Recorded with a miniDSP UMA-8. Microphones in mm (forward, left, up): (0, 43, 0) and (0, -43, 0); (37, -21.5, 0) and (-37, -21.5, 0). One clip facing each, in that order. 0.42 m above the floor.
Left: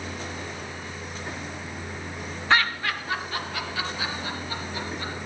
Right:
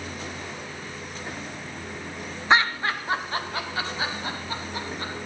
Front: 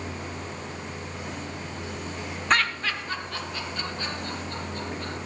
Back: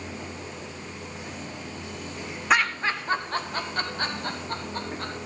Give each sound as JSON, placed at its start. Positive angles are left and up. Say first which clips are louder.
{"t": 2.5, "sound": "laughter", "louder": "right 2 dB, back 2 dB", "azimuth_deg": -105, "distance_m": 0.8}